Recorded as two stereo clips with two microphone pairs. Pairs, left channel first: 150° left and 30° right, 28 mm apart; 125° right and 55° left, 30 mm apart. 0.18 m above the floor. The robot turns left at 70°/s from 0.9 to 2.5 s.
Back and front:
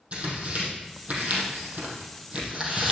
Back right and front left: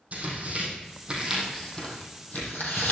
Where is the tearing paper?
10° left, 3.5 m; by 2.9 s 100° right, 3.5 m.